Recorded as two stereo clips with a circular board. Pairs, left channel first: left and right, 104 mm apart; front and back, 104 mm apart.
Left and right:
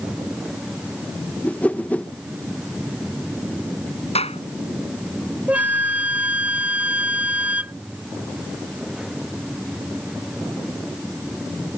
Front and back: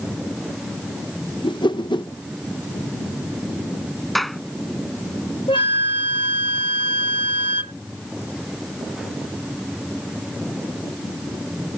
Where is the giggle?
No giggle in this recording.